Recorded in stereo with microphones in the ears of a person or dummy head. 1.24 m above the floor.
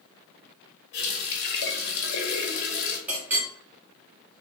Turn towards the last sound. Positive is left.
turn(degrees=-10)  # may be behind; listen again after turning